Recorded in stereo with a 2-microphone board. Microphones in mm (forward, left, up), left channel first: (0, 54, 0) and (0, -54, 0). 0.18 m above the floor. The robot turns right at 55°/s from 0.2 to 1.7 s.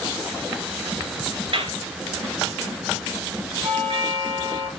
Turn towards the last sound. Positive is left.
turn(degrees=-65)  # may be behind; listen again after turning